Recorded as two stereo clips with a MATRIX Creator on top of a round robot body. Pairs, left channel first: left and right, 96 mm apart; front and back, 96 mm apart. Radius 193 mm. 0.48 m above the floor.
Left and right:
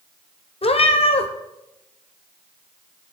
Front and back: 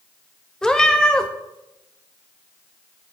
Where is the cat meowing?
85° left, 1.1 m.